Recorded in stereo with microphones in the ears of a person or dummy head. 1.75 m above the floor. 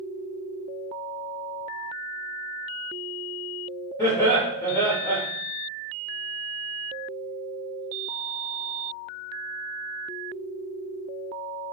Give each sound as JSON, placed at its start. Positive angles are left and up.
{"t": 4.0, "sound": "laughter", "side_deg": 10, "distance_m": 0.8}